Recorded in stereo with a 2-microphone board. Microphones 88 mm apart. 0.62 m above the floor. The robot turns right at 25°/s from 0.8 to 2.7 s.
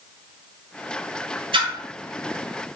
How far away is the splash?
About 1.4 m.